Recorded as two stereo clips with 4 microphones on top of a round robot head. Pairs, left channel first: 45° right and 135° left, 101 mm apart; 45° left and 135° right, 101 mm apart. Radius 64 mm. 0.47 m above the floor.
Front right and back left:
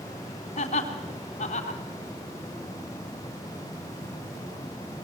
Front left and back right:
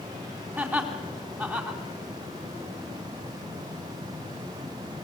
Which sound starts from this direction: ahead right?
Laughter, at 0.6 s.